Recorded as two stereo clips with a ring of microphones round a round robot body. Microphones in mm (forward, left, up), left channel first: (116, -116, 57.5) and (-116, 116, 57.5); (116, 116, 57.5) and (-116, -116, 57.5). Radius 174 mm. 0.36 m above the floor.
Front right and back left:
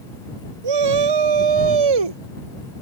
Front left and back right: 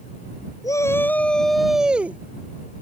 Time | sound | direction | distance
0.6 | a shout | 125° left | ?